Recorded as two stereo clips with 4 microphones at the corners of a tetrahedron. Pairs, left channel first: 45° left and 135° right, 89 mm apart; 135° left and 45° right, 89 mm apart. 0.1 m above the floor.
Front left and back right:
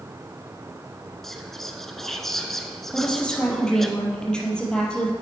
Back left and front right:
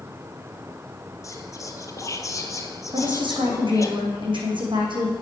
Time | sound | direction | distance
1.2 | whispering | 130° left | 1.3 m
2.9 | a woman speaking | 35° right | 3.5 m